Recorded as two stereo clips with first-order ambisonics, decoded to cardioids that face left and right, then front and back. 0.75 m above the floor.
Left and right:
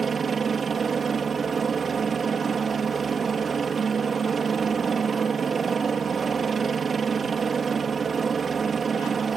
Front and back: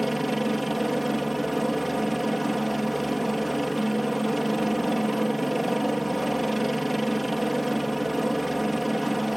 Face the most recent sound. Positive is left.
turn(degrees=-95)